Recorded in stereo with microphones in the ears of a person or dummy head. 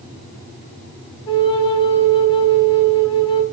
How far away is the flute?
About 1.1 m.